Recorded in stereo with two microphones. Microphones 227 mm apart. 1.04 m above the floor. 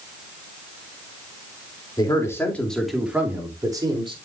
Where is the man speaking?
20° left (ahead or behind), 2.5 m; by 4.2 s 20° right (ahead or behind), 3 m.